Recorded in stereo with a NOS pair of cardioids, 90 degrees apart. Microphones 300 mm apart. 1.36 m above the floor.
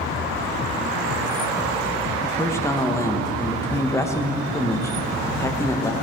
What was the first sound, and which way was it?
A man speaking, 10° left.